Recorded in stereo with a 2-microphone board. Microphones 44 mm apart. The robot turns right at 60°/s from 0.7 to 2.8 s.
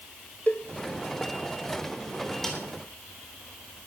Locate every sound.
0.5 s a cowbell: 35° left (ahead or behind), 1.0 m
2.4 s a snare drum: 10° left (ahead or behind), 3.5 m; by 2.6 s centre (ahead or behind), 3.5 m